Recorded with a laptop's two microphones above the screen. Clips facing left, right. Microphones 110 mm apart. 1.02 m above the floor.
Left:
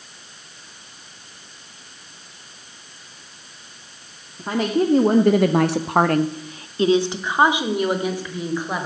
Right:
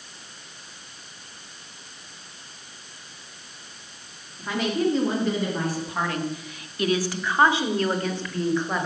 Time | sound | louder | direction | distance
4.4 | a woman speaking | left 4 dB | 30° left (ahead or behind) | 2.0 m